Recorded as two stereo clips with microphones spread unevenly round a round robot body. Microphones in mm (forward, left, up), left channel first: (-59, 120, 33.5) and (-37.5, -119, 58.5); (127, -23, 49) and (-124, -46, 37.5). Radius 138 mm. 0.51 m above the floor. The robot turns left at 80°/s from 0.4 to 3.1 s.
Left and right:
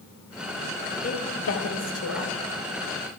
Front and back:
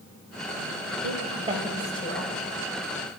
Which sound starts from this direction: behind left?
A woman speaking, at 1.0 s.